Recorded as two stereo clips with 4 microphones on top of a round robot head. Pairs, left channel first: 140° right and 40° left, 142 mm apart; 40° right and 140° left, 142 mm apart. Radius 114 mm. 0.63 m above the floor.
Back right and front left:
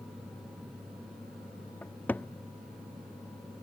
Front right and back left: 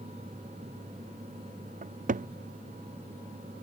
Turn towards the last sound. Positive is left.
turn(degrees=140)